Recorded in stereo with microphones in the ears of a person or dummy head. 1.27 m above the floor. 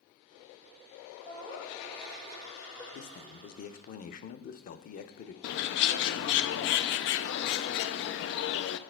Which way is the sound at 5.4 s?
60° left (ahead or behind).